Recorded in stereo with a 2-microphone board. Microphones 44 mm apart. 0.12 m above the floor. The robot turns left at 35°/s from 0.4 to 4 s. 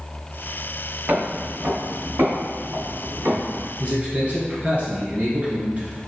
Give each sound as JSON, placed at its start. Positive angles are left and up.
{"t": 1.1, "sound": "footsteps", "side_deg": -35, "distance_m": 0.9}
{"t": 3.8, "sound": "a man speaking", "side_deg": -30, "distance_m": 1.4}